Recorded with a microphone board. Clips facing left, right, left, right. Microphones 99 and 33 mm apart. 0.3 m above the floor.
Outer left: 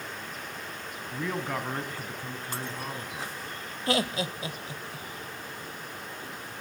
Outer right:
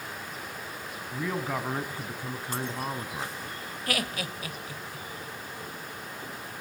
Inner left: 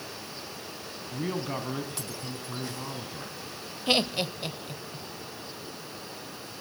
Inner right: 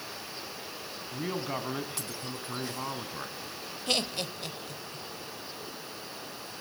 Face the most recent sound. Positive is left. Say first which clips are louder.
# outer left 5 dB, inner left 5 dB
turn(degrees=25)  # may be behind; listen again after turning